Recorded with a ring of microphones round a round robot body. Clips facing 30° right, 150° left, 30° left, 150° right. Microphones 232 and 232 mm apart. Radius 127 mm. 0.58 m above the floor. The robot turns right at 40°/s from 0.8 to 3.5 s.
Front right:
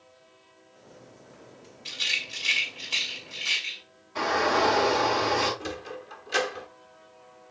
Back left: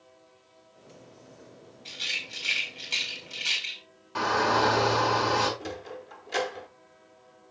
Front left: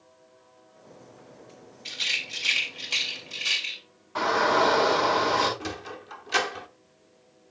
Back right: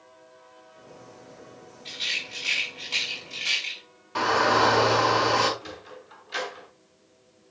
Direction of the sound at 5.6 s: 55° left.